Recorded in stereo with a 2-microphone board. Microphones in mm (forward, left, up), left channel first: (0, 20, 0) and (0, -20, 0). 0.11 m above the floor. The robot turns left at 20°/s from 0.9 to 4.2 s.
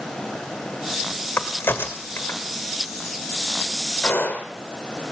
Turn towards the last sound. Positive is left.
turn(degrees=55)  # may be behind; listen again after turning